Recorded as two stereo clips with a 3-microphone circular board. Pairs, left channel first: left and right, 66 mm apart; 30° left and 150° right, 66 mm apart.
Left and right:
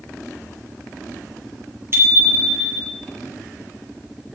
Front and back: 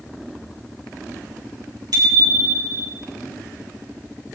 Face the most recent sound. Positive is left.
turn(degrees=-140)